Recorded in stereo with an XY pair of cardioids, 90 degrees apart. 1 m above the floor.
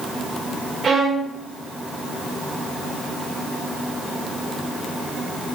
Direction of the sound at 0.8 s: 45° right.